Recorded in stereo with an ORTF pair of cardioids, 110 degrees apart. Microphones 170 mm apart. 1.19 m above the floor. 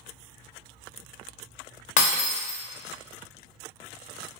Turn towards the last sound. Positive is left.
turn(degrees=55)